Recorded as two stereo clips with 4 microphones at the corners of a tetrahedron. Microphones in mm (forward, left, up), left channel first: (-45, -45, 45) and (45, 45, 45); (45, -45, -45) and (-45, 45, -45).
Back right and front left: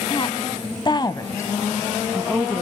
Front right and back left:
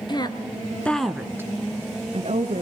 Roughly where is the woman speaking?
Right.